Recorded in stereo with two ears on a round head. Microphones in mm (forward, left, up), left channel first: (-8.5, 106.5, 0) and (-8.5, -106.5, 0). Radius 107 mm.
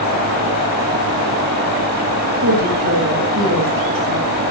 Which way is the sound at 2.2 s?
65° right (ahead or behind).